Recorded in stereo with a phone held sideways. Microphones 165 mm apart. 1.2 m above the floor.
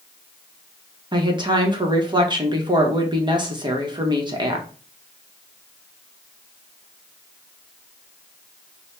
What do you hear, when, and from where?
1.1 s a woman speaking: 30° right (ahead or behind), 0.8 m